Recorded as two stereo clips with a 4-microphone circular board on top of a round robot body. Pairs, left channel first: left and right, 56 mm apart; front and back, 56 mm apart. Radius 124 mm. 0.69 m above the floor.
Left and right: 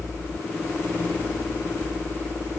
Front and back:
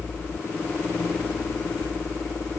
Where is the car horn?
I don't hear a car horn.